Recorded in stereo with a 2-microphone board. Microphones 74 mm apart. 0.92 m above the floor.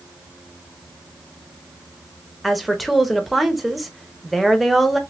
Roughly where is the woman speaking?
Centre.